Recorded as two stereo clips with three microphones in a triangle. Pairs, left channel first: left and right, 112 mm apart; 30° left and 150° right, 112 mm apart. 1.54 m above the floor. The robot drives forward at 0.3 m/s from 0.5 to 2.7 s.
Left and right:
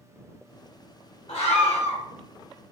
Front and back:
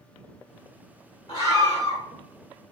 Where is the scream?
80° left, 1.8 m; by 2.0 s 90° left, 1.8 m.